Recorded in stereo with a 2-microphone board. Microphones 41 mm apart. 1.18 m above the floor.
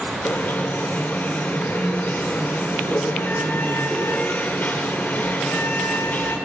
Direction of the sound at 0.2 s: 45° left (ahead or behind).